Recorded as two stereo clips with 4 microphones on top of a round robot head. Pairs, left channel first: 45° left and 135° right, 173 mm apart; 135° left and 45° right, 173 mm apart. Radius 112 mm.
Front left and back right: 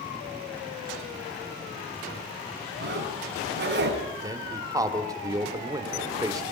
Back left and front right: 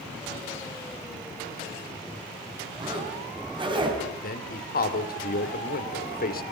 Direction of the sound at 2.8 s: 110° right.